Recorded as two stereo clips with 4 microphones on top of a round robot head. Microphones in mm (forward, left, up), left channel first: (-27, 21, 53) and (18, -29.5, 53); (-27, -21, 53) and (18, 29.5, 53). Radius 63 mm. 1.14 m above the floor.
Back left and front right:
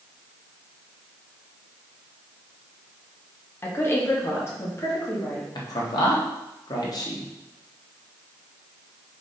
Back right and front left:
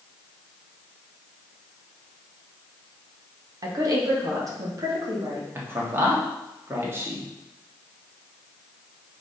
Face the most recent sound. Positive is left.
turn(degrees=105)